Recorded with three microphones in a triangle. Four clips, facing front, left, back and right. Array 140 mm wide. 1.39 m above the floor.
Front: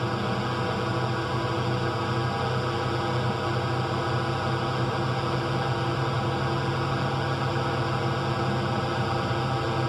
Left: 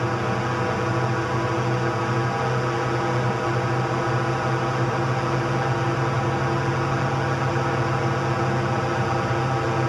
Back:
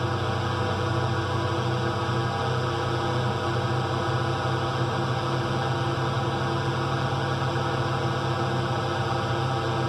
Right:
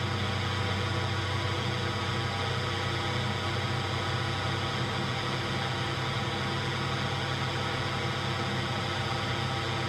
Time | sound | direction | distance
0.0 | a drone | 95° left | ?